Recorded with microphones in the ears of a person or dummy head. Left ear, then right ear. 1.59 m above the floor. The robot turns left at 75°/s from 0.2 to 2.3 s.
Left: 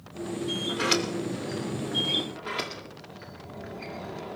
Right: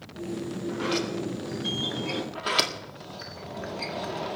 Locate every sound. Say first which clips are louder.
0.7 s a sliding door: left 2 dB; 80° left, 3 m; by 2.2 s 35° right, 3 m
2.4 s a sliding door: right 7 dB; 35° right (ahead or behind), 2 m